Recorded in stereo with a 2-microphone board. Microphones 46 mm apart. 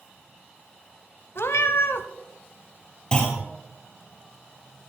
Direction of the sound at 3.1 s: 25° left (ahead or behind).